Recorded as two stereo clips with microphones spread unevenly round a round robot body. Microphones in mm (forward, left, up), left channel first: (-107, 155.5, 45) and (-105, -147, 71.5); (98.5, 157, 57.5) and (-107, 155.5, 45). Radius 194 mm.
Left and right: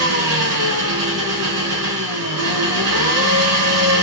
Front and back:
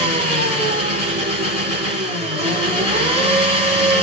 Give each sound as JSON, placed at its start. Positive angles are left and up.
{"t": 0.0, "sound": "an engine running", "azimuth_deg": -110, "distance_m": 3.0}